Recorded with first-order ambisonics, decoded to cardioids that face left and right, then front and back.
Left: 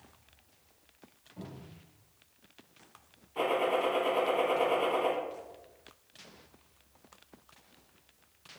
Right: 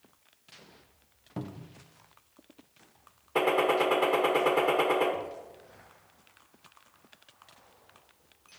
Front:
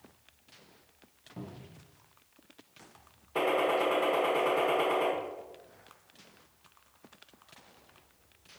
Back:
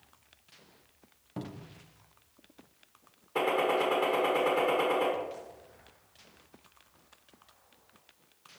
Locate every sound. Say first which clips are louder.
1.4 s a cupboard door: right 7 dB, back 4 dB; 120° right, 0.6 m
3.4 s a gunshot: right 4 dB, even; 90° right, 1.5 m